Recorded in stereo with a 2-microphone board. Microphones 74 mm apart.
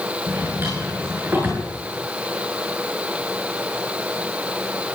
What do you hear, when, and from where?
0.3 s a drawer: 30° right (ahead or behind), 8.5 m